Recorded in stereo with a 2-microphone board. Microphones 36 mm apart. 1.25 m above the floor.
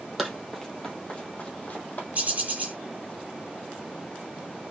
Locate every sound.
0.2 s running footsteps: centre (ahead or behind), 1.5 m; by 2.0 s 45° left (ahead or behind), 1.8 m
2.1 s a bird: 40° right (ahead or behind), 2.5 m